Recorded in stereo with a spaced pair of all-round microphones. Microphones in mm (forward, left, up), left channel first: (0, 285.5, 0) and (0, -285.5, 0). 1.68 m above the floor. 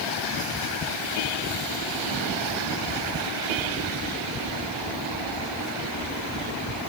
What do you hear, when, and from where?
Only background noise.